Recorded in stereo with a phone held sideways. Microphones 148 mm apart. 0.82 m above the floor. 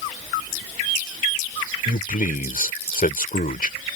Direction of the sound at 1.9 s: 70° left (ahead or behind).